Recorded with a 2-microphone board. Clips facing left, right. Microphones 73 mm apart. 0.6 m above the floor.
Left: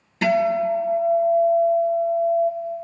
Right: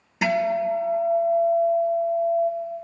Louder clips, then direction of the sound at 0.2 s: Left 3 dB; 10° right (ahead or behind).